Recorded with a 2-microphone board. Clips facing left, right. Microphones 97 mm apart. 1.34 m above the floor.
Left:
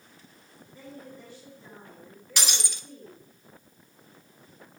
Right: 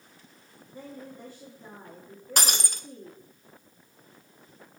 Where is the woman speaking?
45° right (ahead or behind), 2.5 m.